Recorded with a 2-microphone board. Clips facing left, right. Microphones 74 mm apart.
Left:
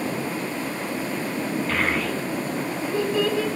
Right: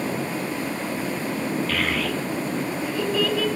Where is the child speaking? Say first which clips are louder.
Left 1 dB; 25° left (ahead or behind), 0.7 m.